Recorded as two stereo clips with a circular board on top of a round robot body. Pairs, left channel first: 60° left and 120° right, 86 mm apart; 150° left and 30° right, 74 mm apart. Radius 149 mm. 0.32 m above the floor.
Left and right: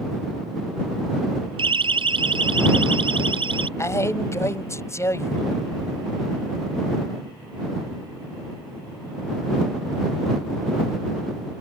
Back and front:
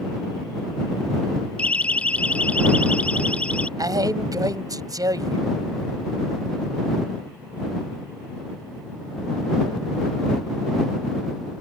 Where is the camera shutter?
I don't hear a camera shutter.